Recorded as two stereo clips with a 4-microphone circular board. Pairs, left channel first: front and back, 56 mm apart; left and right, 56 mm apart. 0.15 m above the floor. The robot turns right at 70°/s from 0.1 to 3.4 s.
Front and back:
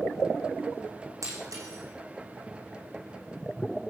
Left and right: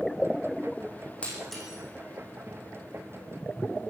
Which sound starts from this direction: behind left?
Breaking glass, at 1.2 s.